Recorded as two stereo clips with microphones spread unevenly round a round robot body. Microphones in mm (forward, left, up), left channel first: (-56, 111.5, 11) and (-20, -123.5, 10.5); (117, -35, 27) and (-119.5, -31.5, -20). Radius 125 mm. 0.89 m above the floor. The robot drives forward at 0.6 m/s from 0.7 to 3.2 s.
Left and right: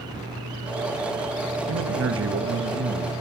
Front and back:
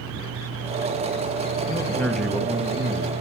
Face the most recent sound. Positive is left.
turn(degrees=-125)